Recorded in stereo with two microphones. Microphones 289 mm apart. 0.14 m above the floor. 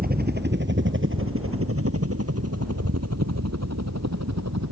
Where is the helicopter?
35° right (ahead or behind); by 4.7 s 75° right (ahead or behind).